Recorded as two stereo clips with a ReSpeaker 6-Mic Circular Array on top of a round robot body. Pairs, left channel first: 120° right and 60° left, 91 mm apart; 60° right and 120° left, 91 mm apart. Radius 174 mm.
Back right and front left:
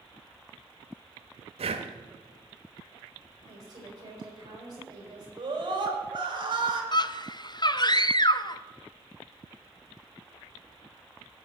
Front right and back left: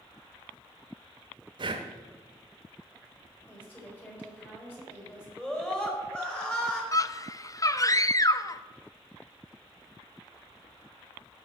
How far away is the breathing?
About 1.0 m.